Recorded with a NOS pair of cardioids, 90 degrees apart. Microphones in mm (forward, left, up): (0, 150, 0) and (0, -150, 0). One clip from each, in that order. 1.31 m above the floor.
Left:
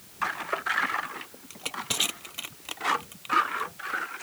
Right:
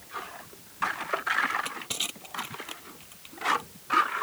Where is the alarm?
No alarm in this recording.